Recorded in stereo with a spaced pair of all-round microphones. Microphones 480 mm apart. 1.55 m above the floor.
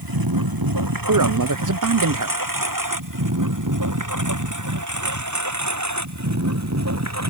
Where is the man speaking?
40° right (ahead or behind).